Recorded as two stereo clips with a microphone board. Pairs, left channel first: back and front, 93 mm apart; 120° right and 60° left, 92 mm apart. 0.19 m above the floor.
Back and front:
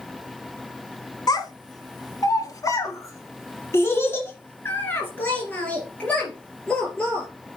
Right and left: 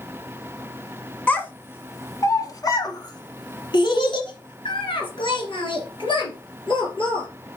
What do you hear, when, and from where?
1.3 s a child speaking: 175° left, 1.4 m; by 7.3 s 100° right, 3 m